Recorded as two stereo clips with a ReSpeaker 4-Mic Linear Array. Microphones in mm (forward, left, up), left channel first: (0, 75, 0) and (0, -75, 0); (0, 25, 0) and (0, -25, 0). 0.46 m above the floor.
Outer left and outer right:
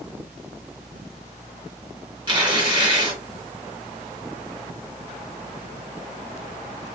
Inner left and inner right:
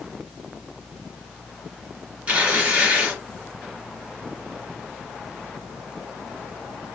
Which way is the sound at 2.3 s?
30° right (ahead or behind).